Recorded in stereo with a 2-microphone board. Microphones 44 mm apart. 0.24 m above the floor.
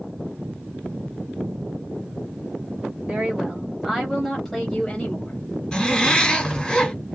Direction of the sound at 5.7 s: 15° left (ahead or behind).